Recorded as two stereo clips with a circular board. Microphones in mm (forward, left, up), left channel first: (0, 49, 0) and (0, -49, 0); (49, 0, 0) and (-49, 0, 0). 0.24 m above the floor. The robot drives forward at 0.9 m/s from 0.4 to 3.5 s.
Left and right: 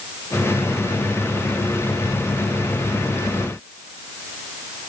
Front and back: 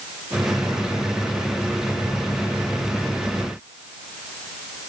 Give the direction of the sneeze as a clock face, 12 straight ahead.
No sneeze in this recording.